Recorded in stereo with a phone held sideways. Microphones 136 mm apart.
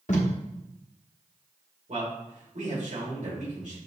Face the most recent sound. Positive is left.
turn(degrees=-65)  # may be behind; listen again after turning